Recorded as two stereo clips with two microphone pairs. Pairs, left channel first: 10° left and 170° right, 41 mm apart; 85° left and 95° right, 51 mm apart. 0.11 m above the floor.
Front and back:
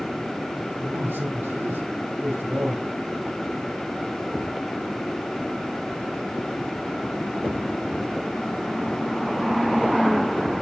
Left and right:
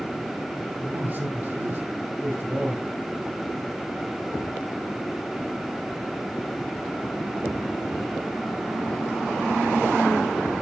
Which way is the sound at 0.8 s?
150° right.